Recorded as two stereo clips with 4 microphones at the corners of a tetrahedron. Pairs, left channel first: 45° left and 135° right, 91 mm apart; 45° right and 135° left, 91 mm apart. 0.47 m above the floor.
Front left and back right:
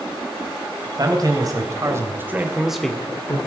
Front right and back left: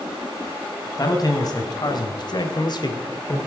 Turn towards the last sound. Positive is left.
turn(degrees=-5)